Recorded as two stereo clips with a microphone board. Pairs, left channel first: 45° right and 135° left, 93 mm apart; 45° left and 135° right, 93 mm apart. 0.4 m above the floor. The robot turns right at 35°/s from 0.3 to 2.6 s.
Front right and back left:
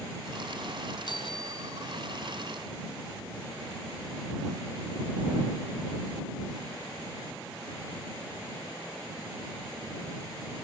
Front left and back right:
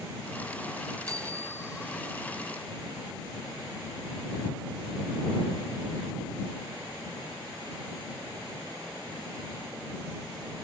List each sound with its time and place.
1.1 s a bicycle bell: 85° right; by 2.2 s 45° right